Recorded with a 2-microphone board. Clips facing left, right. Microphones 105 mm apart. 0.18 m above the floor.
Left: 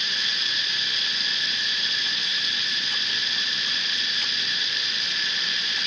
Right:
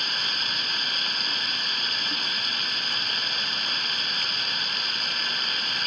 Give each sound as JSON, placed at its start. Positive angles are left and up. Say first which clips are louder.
{"t": 0.0, "sound": "running water", "louder": "right 1 dB", "side_deg": -40}